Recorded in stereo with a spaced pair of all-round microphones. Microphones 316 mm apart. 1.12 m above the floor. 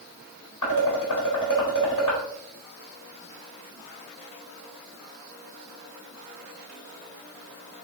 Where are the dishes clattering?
70° left (ahead or behind), 4 m.